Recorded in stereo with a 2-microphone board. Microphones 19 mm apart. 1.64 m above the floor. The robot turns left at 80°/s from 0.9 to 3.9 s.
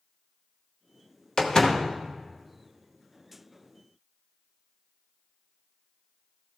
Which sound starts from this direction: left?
A door slam, at 1.4 s.